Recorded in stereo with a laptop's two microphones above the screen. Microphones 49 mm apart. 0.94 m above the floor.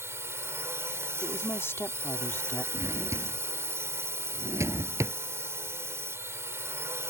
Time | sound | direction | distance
0.0 | a drone | 60° right (ahead or behind) | ?
1.2 | a woman speaking | 55° left (ahead or behind) | ?
2.7 | a drawer | 75° right (ahead or behind) | ?